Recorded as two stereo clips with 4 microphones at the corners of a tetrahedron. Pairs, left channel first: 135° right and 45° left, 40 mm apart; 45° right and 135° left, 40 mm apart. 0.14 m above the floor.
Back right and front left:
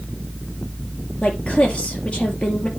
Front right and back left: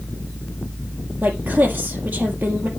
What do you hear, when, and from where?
1.2 s a woman speaking: 170° left, 3 m